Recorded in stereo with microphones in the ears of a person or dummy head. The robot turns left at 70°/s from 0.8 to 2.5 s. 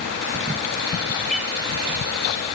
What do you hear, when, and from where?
1.3 s a cat meowing: centre (ahead or behind), 1.9 m; by 1.5 s 20° right (ahead or behind), 1.9 m